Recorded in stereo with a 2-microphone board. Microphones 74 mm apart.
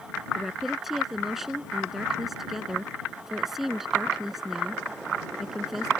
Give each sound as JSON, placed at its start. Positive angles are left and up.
{"t": 0.3, "sound": "a woman speaking", "side_deg": 0}